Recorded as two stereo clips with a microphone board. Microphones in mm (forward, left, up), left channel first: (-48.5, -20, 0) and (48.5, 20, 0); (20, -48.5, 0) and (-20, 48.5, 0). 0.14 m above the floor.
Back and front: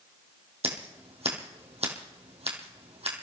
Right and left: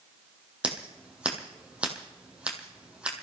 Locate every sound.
0.6 s scissors: 35° left, 3 m